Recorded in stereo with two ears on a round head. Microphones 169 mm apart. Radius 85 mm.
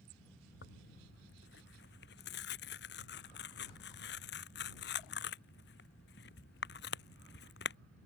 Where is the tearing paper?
65° left (ahead or behind).